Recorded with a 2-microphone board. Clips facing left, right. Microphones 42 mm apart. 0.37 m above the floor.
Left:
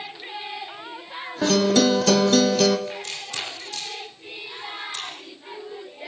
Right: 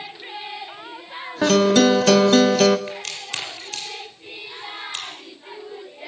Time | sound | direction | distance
1.4 | a guitar | 40° right (ahead or behind) | 0.9 m
2.9 | a crack | 80° right | 7.5 m